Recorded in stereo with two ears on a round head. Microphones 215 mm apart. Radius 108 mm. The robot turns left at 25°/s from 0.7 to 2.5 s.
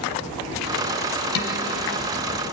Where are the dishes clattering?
60° left (ahead or behind), 2 m; by 1.6 s 55° left (ahead or behind), 2 m.